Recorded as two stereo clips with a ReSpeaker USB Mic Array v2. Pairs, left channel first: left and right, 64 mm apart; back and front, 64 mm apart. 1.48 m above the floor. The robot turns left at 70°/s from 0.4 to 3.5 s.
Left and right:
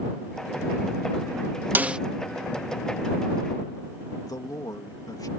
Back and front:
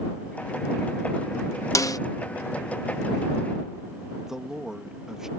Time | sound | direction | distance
1.8 | a snare drum | 150° right | ?
4.2 | a man speaking | 80° left | ?